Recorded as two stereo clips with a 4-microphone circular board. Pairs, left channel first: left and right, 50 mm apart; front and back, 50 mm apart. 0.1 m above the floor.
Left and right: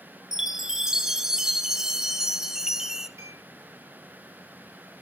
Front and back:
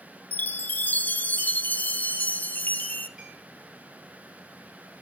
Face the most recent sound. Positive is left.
turn(degrees=-100)